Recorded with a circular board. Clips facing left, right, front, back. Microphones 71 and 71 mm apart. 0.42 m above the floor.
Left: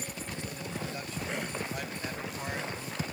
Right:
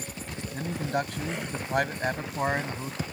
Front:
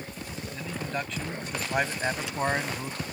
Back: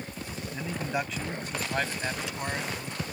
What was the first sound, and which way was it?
A man speaking, 115° right.